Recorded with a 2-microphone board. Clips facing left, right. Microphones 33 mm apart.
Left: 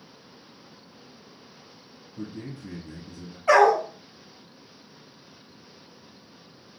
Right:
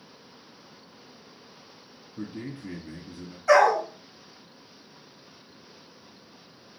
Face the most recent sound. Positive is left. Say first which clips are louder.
# left 1 dB
turn(degrees=50)  # may be behind; listen again after turning